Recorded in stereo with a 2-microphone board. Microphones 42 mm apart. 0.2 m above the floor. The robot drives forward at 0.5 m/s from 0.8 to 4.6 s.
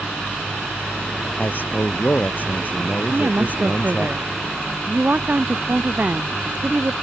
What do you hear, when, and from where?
1.4 s a man speaking: 50° left (ahead or behind); by 4.1 s 40° left (ahead or behind)
3.1 s a woman speaking: 40° right (ahead or behind); by 6.9 s 45° right (ahead or behind)